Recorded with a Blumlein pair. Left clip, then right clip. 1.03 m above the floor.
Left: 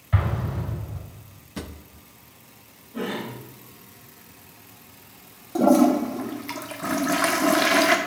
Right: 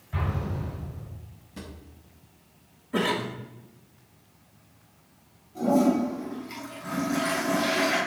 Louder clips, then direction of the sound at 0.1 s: Left 3 dB; 35° left.